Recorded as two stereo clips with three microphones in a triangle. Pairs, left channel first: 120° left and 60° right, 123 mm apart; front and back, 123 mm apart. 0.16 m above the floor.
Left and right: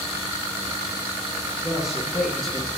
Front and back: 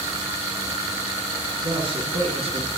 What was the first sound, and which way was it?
A man speaking, 145° right.